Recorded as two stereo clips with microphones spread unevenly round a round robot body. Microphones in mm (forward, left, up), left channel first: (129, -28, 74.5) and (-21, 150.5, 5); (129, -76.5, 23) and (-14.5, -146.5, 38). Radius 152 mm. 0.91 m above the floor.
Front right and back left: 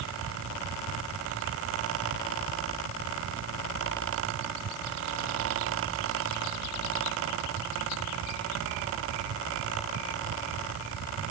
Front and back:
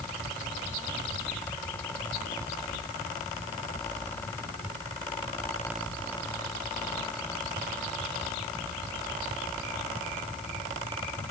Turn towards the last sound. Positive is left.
No sound to turn to.